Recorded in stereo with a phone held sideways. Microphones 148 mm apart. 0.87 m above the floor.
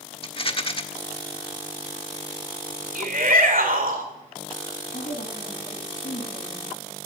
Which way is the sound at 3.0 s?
75° right (ahead or behind).